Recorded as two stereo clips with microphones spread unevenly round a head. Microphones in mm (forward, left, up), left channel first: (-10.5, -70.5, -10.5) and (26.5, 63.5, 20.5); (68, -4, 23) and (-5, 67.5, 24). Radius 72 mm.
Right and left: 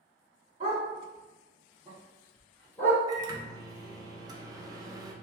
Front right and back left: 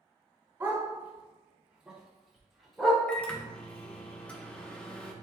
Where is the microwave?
30° left, 0.6 m.